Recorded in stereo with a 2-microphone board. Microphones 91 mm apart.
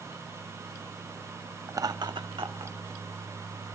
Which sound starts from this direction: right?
Laughter, at 1.7 s.